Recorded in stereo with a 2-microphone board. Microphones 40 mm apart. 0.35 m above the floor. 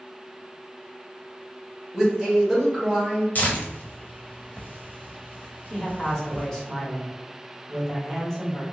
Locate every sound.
1.9 s a man speaking: 5° right (ahead or behind), 1.0 m
3.4 s tearing paper: 50° left (ahead or behind), 0.6 m
5.7 s a man speaking: 15° left (ahead or behind), 1.1 m